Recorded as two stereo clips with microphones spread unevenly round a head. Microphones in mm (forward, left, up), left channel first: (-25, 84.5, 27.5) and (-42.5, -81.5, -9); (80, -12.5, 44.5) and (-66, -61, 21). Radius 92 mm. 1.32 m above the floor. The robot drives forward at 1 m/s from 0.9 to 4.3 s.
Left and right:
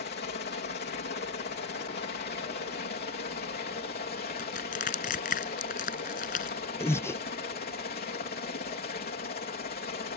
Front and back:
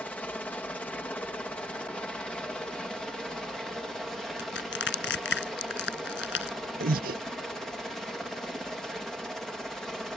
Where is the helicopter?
105° left; by 10.2 s 110° left.